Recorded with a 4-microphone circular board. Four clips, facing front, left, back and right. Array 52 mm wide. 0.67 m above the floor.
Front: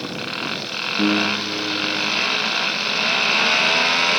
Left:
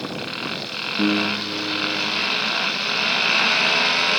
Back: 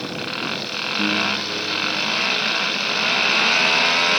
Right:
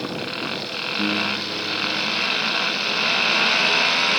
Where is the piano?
40° left.